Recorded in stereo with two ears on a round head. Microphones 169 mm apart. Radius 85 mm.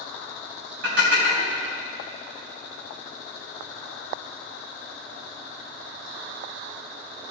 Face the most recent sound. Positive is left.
turn(degrees=-65)  # may be behind; listen again after turning